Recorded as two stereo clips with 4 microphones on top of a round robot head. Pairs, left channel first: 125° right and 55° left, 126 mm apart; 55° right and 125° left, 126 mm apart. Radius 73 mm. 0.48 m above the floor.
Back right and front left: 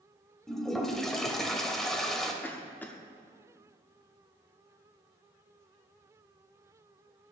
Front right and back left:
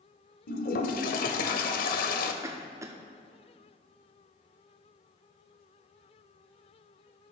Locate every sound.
0.5 s a toilet flushing: 40° right, 0.7 m
2.4 s a cough: 170° left, 0.7 m